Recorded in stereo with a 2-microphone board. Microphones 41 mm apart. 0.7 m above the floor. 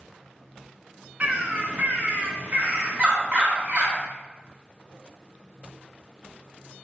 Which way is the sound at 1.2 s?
35° right (ahead or behind).